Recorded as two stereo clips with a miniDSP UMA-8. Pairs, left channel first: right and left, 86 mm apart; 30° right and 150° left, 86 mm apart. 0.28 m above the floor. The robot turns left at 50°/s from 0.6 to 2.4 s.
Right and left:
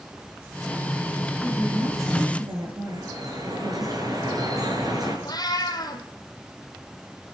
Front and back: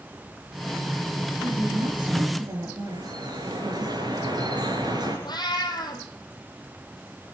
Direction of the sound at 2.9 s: 125° left.